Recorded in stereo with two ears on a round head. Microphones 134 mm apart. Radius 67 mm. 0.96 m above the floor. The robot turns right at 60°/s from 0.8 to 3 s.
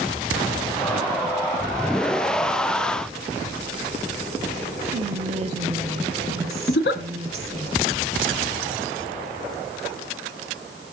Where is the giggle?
70° left (ahead or behind), 1.1 m.